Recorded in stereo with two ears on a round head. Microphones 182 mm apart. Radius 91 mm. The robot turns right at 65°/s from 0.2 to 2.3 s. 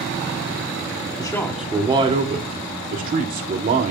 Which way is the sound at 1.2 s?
155° left.